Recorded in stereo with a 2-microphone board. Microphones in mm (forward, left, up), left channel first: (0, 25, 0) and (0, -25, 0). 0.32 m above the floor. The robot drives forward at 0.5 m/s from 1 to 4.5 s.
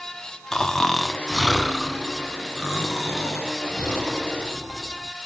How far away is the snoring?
About 0.6 m.